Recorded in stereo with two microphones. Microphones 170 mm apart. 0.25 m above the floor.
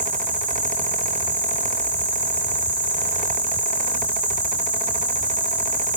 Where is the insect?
5° right (ahead or behind), 5.5 m.